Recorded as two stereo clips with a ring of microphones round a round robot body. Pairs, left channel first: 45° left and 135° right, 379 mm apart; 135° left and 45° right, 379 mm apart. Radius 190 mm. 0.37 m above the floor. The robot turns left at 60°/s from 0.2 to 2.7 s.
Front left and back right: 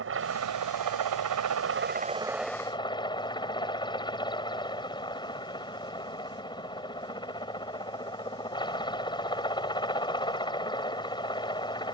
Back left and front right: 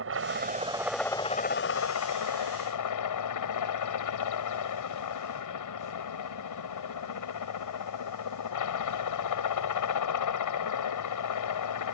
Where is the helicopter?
90° right; by 11.9 s 120° left.